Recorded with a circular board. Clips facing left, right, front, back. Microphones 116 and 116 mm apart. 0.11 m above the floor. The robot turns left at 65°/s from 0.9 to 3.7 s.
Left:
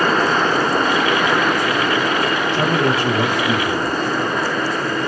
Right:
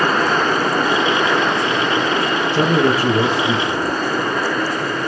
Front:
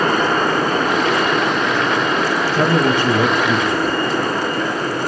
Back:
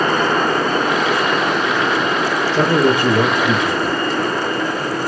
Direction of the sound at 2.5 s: 115° right.